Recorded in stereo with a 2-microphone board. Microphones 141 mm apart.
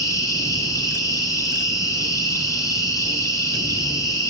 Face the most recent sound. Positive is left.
turn(degrees=25)  # may be behind; listen again after turning